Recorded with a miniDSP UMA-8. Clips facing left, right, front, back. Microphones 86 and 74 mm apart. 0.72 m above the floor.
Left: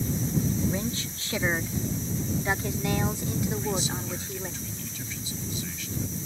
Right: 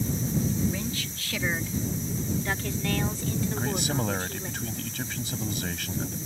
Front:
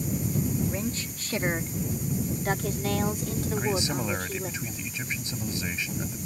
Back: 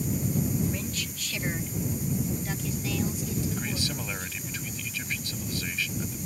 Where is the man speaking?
65° right.